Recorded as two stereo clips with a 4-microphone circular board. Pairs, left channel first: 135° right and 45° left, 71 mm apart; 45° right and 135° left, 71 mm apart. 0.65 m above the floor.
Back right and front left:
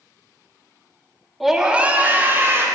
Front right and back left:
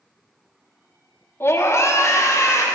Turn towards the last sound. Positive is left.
turn(degrees=-10)